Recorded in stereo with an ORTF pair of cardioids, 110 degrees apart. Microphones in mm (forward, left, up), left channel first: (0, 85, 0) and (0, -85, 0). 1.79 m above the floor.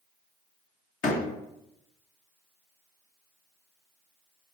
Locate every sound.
1.0 s a door slam: 55° left, 2 m